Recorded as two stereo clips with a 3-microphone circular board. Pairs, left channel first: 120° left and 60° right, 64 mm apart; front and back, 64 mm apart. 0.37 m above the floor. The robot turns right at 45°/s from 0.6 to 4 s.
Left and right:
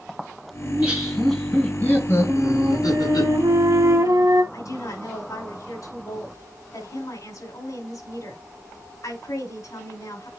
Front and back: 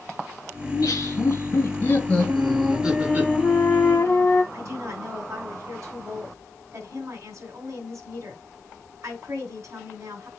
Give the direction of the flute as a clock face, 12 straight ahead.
4 o'clock.